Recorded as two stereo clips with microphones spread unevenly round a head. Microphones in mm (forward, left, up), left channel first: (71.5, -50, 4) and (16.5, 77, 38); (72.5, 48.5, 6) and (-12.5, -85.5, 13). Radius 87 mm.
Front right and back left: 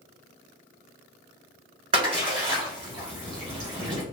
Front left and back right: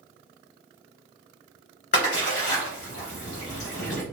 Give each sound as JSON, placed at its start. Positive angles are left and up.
{"t": 1.9, "sound": "a splash", "azimuth_deg": 95, "distance_m": 1.6}